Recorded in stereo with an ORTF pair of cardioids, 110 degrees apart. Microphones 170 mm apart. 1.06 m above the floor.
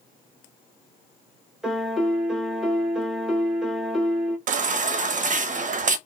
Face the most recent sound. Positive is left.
turn(degrees=-50)